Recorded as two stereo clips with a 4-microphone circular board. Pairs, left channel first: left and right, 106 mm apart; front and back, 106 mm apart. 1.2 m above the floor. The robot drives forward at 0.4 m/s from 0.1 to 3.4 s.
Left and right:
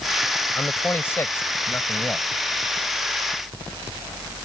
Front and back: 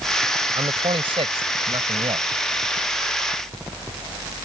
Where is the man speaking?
155° left; by 2.3 s 160° left.